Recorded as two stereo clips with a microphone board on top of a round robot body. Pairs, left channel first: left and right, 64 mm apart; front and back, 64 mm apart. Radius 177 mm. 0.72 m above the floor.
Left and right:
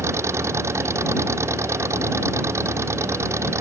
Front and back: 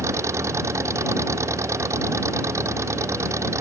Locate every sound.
0.0 s an engine running: 135° right